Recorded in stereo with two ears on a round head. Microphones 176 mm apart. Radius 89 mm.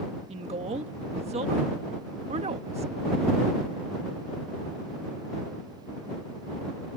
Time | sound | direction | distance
0.3 | a woman speaking | 35° right (ahead or behind) | ?